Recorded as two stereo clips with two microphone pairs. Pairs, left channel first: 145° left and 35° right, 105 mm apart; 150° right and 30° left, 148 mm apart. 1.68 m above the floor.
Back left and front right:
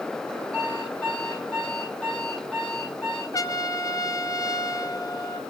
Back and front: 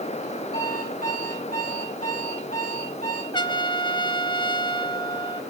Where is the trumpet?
175° left, 0.8 m.